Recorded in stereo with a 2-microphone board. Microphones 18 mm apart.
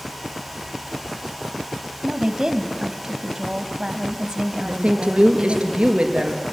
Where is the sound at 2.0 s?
35° right (ahead or behind), 1.7 m.